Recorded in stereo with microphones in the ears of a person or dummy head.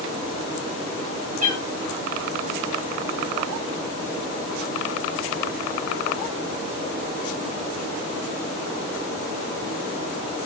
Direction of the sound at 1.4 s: 50° right (ahead or behind).